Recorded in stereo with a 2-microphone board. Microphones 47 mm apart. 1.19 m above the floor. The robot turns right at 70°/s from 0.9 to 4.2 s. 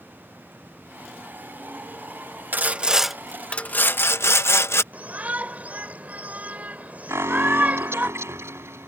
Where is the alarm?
75° right (ahead or behind).